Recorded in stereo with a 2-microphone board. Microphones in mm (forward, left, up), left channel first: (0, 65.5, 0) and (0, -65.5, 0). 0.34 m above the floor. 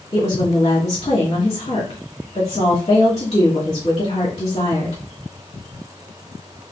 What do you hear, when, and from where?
0.1 s a woman speaking: 55° left (ahead or behind), 1.8 m